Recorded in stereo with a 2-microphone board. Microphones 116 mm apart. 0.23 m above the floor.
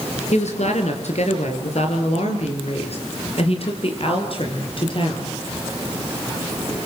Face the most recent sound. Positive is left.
turn(degrees=45)  # may be behind; listen again after turning